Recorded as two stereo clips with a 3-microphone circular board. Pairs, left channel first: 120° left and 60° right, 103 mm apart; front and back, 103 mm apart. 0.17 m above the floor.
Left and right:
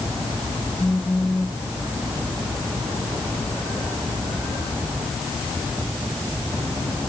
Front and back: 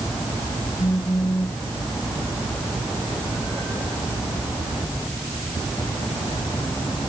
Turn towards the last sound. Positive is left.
turn(degrees=50)